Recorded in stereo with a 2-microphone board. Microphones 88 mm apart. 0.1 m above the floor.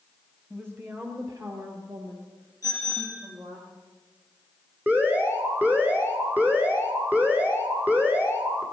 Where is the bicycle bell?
40° left (ahead or behind), 6.5 m.